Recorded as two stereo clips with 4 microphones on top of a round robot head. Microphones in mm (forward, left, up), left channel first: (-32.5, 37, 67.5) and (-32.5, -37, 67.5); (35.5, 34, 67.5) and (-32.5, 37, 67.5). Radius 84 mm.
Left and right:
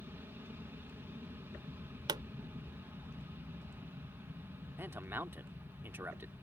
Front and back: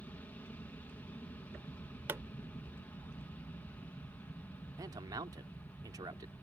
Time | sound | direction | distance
0.0 | an aircraft | 50° right | ?
2.1 | a pop | 115° right | ?
4.8 | a man speaking | 150° right | ?